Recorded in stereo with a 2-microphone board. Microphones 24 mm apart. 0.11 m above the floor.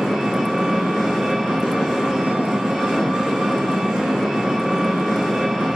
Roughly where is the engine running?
Right.